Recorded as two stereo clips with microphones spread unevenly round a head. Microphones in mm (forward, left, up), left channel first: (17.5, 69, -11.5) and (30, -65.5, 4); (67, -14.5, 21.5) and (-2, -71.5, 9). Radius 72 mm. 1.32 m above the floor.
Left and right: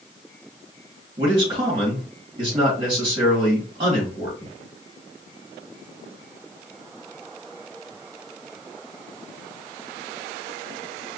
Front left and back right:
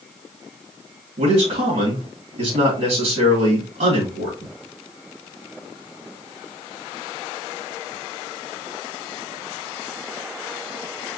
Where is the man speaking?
150° right, 2.5 m.